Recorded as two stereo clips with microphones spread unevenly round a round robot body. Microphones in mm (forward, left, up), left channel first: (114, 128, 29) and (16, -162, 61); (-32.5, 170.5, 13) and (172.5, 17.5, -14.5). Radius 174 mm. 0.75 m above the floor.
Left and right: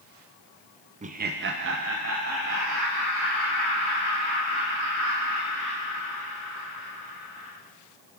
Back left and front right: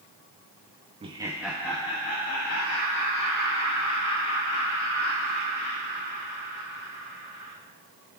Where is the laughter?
50° right, 0.6 m; by 7.5 s 170° right, 3.5 m.